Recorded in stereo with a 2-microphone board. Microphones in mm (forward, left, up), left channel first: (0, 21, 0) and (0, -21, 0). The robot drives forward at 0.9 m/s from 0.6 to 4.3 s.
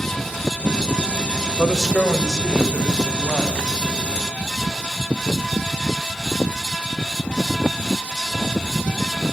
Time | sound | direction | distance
1.6 | a man speaking | 5° left (ahead or behind) | 1.2 m